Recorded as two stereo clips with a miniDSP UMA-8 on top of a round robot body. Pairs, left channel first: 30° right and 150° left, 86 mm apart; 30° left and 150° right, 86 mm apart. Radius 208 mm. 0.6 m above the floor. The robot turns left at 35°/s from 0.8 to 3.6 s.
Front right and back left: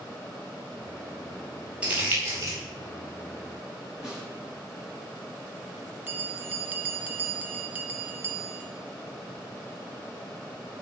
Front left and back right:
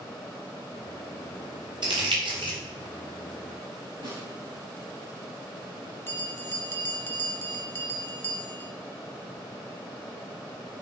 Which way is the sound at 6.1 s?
85° left.